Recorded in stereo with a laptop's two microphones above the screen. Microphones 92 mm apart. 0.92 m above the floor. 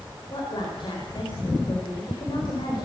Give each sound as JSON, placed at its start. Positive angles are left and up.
{"t": 0.3, "sound": "a woman speaking", "side_deg": 60, "distance_m": 4.5}